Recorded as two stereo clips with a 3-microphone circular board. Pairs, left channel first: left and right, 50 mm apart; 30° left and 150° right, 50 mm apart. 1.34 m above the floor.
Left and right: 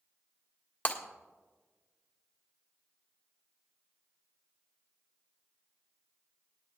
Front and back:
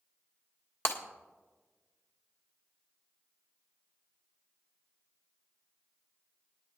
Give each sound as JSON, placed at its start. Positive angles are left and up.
{"t": 0.8, "sound": "breaking glass", "azimuth_deg": 45, "distance_m": 1.5}